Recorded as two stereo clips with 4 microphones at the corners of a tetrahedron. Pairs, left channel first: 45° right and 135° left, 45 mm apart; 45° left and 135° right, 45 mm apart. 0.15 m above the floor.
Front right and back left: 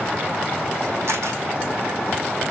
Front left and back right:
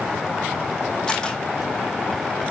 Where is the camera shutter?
125° left, 2.5 m.